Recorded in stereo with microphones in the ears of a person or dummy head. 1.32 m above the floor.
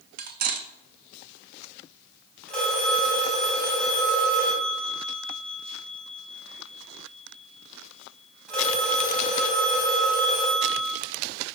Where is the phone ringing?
Centre (ahead or behind), 6 m.